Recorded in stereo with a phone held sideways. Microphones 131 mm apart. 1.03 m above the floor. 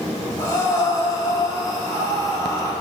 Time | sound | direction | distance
0.4 | breathing | 30° left (ahead or behind) | 3 m